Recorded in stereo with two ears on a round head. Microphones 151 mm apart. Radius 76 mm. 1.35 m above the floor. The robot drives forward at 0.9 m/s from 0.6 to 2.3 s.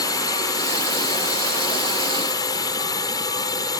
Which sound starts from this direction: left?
A drone, at 0.0 s.